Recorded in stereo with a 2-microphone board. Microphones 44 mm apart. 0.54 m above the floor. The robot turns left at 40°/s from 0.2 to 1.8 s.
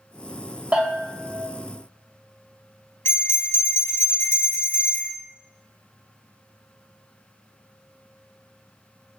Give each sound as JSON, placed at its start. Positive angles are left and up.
{"t": 0.7, "sound": "a bell", "side_deg": -30, "distance_m": 1.4}
{"t": 3.0, "sound": "a bell", "side_deg": 65, "distance_m": 1.2}